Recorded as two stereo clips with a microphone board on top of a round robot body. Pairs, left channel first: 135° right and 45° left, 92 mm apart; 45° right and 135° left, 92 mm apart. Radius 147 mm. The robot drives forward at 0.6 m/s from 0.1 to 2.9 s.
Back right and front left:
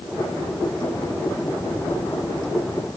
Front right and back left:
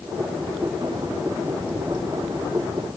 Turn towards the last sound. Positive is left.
No sound to turn to.